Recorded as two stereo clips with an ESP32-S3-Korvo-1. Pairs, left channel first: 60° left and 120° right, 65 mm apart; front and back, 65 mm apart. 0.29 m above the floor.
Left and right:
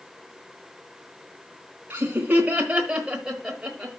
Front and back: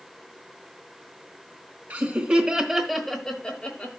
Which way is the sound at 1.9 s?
145° right.